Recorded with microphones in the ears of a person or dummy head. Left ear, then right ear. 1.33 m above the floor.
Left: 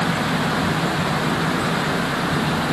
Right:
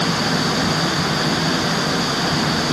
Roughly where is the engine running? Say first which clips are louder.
Right 2 dB; right.